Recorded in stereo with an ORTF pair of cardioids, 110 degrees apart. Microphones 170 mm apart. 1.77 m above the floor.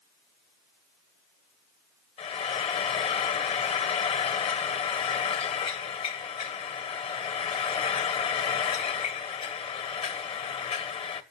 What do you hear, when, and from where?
2.2 s frying: 35° left, 2 m